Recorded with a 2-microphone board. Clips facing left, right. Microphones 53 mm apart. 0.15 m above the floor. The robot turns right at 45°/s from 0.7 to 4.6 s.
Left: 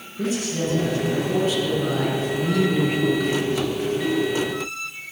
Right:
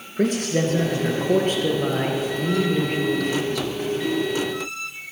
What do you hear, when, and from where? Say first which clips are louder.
0.2 s a man speaking: right 4 dB; 95° right, 3 m; by 3.7 s 40° left, 3 m